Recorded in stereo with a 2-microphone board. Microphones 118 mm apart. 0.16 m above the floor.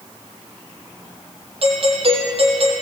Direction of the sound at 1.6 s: 55° right (ahead or behind).